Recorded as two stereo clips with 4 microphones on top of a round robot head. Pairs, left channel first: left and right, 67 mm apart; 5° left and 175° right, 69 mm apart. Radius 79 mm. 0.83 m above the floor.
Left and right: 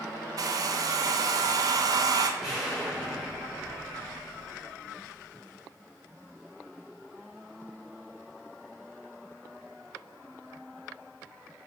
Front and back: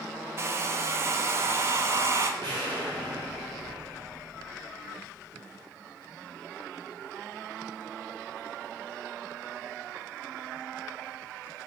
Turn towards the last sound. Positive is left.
turn(degrees=-175)